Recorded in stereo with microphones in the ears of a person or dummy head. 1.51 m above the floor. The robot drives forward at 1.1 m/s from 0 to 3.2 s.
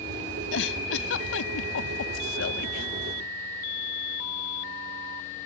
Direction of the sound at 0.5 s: 70° left (ahead or behind).